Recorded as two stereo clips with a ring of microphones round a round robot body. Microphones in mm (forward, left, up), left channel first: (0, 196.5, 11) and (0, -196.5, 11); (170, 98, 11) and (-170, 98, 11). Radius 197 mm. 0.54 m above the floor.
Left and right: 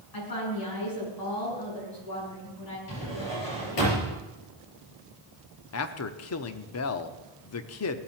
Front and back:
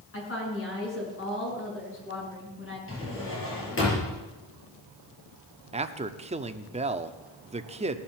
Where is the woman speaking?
55° left, 7 m.